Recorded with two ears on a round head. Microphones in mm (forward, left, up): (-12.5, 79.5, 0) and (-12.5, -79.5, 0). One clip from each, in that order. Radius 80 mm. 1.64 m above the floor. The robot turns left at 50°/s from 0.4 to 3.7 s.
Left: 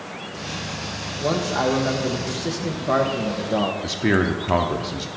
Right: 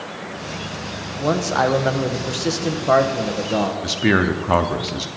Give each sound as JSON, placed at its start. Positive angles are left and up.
{"t": 1.2, "sound": "a man speaking", "azimuth_deg": -50, "distance_m": 0.9}
{"t": 3.8, "sound": "a man speaking", "side_deg": -15, "distance_m": 0.5}